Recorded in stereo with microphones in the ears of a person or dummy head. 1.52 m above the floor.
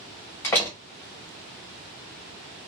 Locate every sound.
0.4 s a door slam: 10° left (ahead or behind), 0.8 m